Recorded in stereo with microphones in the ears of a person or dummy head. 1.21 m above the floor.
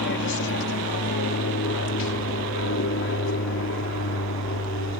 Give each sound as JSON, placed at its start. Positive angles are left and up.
{"t": 0.0, "sound": "an aircraft", "side_deg": 60}